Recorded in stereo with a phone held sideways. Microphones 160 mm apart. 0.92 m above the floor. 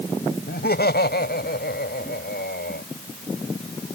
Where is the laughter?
75° left (ahead or behind).